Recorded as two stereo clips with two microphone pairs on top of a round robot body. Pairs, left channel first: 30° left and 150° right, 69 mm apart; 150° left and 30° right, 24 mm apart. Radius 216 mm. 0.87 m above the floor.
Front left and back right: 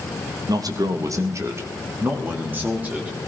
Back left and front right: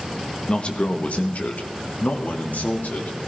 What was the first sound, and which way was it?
A man speaking, 160° right.